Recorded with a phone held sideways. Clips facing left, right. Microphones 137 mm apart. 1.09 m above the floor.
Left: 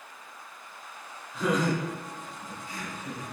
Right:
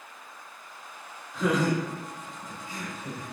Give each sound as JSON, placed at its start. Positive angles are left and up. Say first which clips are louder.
{"t": 1.3, "sound": "laughter", "louder": "right 2 dB", "side_deg": 0, "distance_m": 1.7}